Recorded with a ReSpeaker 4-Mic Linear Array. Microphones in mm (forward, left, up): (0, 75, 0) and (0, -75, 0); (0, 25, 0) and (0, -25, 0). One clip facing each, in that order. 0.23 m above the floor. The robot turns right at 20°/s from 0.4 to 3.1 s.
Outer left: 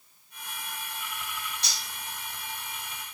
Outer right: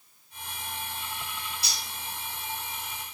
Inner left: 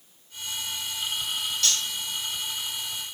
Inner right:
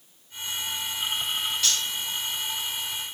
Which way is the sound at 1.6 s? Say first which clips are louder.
Outer right 1 dB, inner left 1 dB; 10° right (ahead or behind).